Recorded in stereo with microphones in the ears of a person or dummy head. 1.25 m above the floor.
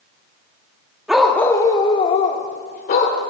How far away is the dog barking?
About 0.9 m.